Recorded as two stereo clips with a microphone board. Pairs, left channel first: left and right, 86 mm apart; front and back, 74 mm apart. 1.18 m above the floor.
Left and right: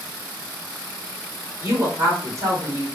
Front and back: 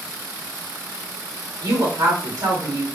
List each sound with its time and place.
1.6 s a woman speaking: 145° right, 2 m